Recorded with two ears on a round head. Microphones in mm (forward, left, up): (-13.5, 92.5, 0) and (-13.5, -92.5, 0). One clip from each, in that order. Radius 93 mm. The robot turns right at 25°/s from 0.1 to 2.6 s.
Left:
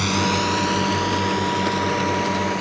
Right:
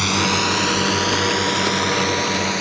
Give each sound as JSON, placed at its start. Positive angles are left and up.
{"t": 0.0, "sound": "a drone", "side_deg": -30}